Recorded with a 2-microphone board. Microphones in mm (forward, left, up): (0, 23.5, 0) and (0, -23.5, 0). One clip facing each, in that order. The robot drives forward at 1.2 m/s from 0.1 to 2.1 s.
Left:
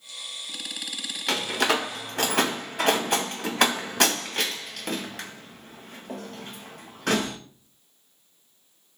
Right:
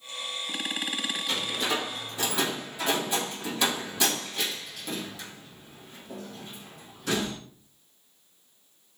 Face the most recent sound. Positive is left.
turn(degrees=60)  # may be behind; listen again after turning